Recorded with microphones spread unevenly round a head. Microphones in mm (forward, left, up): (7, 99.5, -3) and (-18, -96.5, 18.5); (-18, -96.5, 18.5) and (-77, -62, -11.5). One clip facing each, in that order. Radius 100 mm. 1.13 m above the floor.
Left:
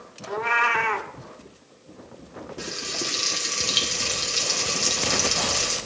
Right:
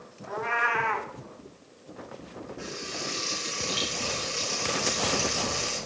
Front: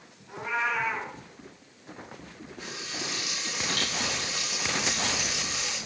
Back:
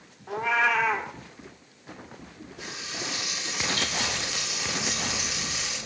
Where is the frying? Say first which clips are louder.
Left 4 dB, back 1 dB; 45° left, 3 m.